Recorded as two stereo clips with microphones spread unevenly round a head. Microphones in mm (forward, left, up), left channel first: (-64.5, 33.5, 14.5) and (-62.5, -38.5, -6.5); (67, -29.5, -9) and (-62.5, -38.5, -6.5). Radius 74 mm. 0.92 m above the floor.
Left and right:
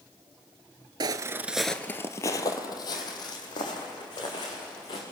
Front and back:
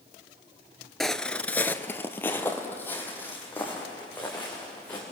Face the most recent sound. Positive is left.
turn(degrees=85)